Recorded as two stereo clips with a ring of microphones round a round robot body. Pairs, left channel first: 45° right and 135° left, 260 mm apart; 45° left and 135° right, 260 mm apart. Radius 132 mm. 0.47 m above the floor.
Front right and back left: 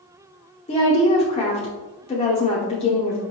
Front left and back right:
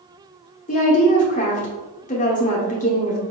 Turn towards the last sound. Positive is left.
turn(degrees=5)